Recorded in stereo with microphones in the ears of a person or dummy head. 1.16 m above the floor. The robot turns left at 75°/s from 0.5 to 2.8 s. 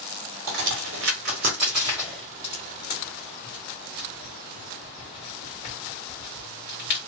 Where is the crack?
60° right (ahead or behind), 1.2 m; by 7.0 s 55° left (ahead or behind), 1.2 m.